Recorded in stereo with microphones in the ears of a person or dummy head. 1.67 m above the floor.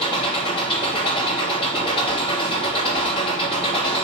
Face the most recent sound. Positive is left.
turn(degrees=30)  # may be behind; listen again after turning